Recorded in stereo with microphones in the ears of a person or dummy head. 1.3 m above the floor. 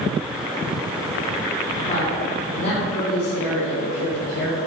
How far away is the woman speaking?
About 4.5 m.